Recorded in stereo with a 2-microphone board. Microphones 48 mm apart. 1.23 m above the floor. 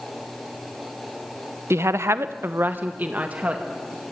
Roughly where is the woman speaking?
Right.